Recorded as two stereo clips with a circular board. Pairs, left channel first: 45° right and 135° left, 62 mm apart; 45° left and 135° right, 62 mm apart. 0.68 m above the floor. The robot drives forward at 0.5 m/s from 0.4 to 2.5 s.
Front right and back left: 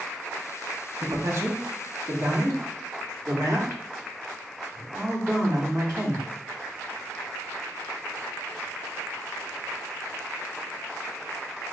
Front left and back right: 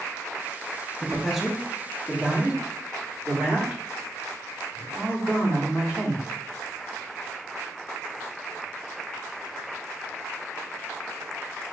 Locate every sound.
1.0 s a man speaking: 125° left, 0.8 m; by 6.2 s 155° left, 1.3 m